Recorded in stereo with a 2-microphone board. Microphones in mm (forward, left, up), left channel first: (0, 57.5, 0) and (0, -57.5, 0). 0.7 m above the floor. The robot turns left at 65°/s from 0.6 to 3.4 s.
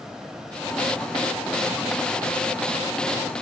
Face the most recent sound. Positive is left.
No sound to turn to.